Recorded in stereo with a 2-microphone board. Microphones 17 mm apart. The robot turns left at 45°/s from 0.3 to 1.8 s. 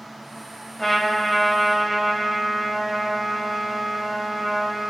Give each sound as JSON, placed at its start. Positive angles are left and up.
{"t": 0.8, "sound": "a trumpet", "side_deg": 5, "distance_m": 0.6}